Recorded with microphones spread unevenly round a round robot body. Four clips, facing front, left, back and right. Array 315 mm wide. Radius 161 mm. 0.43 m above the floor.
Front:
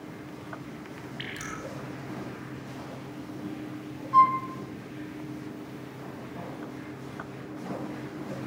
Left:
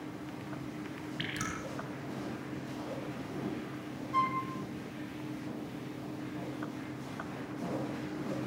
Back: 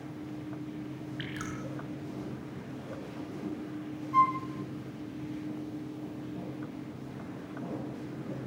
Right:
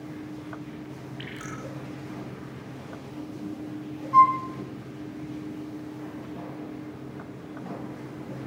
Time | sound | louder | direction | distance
1.2 | dripping | even, even | 130° left | 6.5 m
4.1 | a flute | right 13 dB, front 5 dB | 40° right | 1.6 m